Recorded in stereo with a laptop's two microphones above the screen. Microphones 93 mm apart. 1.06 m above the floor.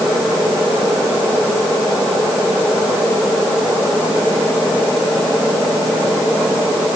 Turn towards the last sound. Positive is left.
No sound to turn to.